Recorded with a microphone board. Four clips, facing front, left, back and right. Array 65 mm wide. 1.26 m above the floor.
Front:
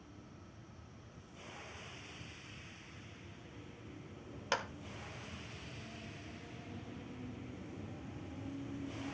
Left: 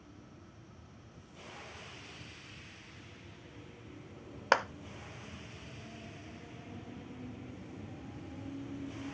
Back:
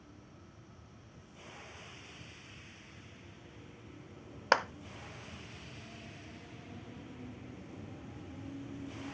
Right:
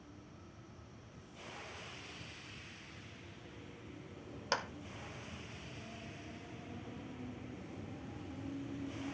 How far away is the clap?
About 0.7 m.